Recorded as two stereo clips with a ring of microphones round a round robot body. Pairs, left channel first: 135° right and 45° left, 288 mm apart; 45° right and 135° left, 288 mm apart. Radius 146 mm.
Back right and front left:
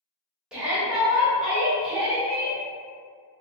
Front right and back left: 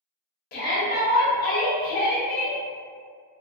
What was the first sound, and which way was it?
A shout, 40° right.